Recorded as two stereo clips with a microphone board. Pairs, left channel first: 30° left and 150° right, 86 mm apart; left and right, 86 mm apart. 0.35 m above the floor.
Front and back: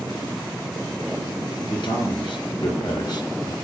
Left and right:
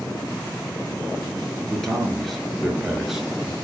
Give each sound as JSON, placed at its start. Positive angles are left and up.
{"t": 1.6, "sound": "a man speaking", "azimuth_deg": 5, "distance_m": 5.0}